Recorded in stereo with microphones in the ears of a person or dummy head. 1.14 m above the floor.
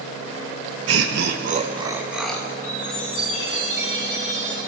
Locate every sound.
0.9 s laughter: 75° right (ahead or behind), 1.4 m; by 2.5 s 5° left (ahead or behind), 1.6 m
2.6 s a chime: 40° left (ahead or behind), 6 m